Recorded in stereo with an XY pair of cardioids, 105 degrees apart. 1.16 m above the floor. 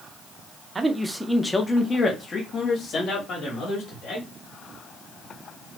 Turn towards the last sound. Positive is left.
turn(degrees=60)